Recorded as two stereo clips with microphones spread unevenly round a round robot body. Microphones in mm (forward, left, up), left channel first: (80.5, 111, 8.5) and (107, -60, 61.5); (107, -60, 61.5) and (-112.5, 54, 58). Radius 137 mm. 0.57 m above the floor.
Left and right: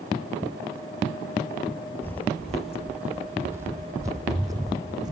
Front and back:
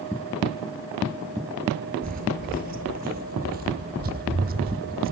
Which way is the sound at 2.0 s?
160° right.